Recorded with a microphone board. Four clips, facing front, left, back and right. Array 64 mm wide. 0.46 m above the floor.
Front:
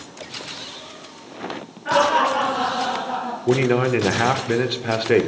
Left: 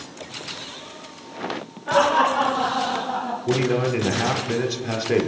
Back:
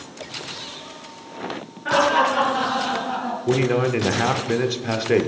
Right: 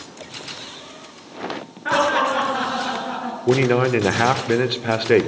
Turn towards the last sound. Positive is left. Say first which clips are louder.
# right 5 dB, front 2 dB
turn(degrees=-70)